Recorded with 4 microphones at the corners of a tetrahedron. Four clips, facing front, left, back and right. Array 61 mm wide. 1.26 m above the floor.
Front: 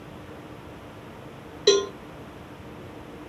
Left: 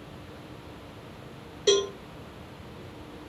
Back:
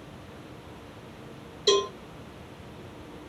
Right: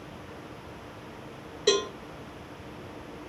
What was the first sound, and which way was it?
A cowbell, 15° right.